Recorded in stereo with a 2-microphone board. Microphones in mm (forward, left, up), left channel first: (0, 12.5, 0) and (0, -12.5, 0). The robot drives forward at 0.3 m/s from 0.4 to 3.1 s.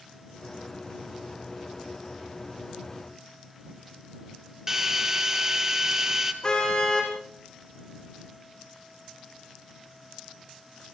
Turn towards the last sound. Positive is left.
turn(degrees=30)  # may be behind; listen again after turning